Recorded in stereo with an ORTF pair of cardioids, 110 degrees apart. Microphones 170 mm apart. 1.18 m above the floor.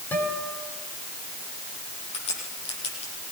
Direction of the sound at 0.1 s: 10° left.